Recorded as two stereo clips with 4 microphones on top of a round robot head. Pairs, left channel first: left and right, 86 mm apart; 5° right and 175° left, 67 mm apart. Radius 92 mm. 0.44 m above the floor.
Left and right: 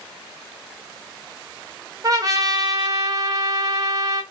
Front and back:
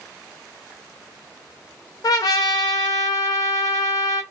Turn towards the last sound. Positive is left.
turn(degrees=-40)